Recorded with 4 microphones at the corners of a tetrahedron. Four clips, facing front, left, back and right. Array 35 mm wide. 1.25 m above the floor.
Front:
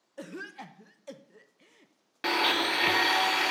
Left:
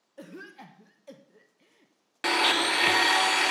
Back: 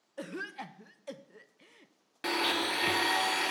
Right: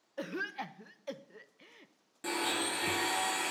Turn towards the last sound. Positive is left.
turn(degrees=70)